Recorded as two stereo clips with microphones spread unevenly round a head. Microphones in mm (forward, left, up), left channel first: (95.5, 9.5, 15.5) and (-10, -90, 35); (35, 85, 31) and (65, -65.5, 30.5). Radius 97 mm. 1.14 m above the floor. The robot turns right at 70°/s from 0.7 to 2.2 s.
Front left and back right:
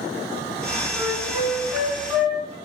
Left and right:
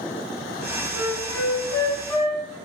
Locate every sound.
0.9 s a flute: 80° left, 1.7 m; by 2.6 s 170° left, 1.7 m